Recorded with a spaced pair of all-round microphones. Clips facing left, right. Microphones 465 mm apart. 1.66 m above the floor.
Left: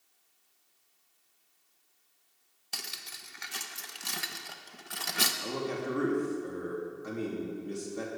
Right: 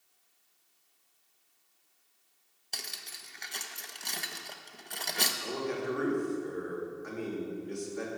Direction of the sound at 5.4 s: 55° left (ahead or behind).